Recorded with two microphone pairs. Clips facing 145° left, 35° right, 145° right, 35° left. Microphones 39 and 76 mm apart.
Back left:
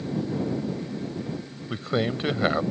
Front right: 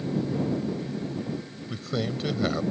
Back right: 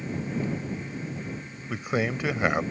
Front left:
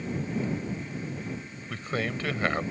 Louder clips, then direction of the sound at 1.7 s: Back left 4 dB, back right 4 dB; 150° left.